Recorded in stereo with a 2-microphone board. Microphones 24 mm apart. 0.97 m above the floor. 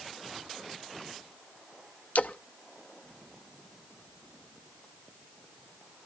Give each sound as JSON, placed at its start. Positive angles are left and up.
{"t": 2.1, "sound": "a splash", "side_deg": 85, "distance_m": 0.6}